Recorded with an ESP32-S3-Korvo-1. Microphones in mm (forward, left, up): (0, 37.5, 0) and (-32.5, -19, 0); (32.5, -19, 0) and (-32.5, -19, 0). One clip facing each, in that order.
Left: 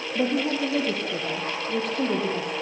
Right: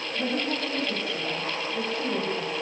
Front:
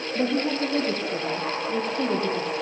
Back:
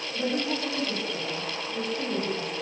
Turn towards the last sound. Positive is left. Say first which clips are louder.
# left 5 dB, front 4 dB
turn(degrees=40)